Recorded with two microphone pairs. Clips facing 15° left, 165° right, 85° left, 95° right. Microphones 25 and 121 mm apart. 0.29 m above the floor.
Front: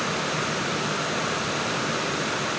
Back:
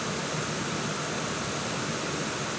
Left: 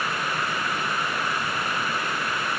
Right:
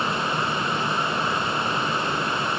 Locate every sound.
Only background noise.